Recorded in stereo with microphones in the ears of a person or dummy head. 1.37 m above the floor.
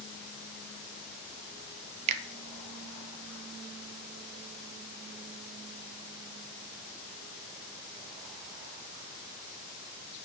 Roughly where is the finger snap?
Right.